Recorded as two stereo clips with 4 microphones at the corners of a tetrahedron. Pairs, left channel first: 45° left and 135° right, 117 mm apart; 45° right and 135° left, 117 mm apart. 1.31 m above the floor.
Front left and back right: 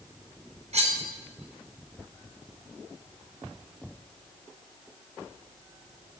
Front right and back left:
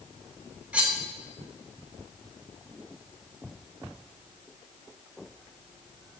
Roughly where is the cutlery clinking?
Behind right.